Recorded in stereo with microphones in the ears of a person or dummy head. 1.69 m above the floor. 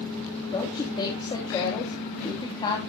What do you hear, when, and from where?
0.5 s a woman speaking: 30° left (ahead or behind), 2.5 m